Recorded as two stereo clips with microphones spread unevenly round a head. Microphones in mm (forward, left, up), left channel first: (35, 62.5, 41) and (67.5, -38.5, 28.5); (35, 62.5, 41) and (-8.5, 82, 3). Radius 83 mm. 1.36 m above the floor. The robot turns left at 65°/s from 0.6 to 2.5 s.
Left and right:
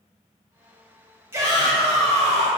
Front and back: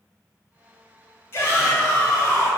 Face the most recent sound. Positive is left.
turn(degrees=-85)